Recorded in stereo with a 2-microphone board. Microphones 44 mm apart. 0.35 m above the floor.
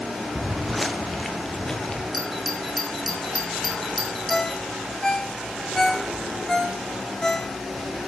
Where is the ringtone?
10° left (ahead or behind), 1.5 m.